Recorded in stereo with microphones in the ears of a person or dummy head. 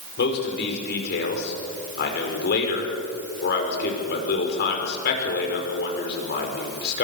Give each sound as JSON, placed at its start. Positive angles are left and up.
{"t": 0.2, "sound": "a man speaking", "side_deg": 60, "distance_m": 5.5}